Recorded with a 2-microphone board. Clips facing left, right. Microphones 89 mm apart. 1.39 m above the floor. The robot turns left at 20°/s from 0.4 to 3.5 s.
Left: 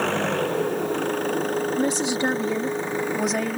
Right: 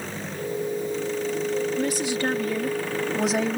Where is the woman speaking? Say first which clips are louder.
Left 2 dB; 30° left; by 3.6 s 5° right.